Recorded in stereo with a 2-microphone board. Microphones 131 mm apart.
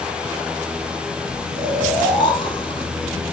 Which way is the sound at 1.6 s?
40° left (ahead or behind).